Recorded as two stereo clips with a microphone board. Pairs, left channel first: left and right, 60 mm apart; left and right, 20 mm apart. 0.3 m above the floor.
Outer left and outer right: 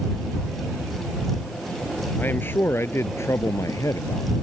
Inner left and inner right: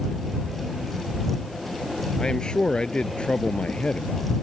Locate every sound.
2.2 s a man speaking: 35° left (ahead or behind); by 4.4 s 70° left (ahead or behind)